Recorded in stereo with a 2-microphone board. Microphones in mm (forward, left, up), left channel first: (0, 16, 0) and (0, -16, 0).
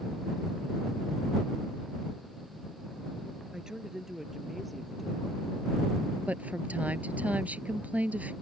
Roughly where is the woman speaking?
Right.